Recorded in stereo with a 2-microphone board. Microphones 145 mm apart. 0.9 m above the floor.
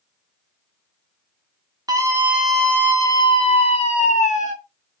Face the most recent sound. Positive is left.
turn(degrees=60)  # may be behind; listen again after turning